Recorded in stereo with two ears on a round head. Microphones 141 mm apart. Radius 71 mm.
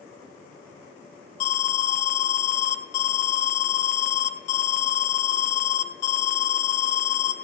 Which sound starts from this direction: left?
An alarm, at 1.4 s.